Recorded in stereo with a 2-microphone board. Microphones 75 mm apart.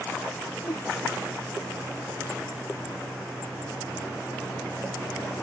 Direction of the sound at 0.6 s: 50° left (ahead or behind).